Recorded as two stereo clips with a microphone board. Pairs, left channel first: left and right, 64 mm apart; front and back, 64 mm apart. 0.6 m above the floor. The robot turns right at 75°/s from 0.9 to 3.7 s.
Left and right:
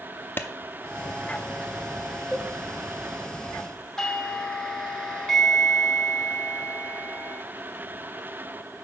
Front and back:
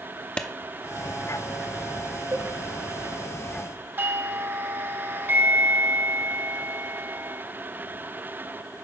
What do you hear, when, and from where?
0.4 s a clap: 60° left, 0.7 m
2.3 s a cowbell: 175° left, 1.7 m; by 2.5 s 170° right, 1.7 m
4.0 s a doorbell: 165° left, 1.4 m